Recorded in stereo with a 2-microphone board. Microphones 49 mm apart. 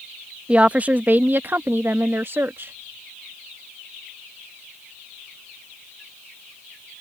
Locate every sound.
0.5 s a woman speaking: 25° right (ahead or behind); by 2.7 s 50° right (ahead or behind)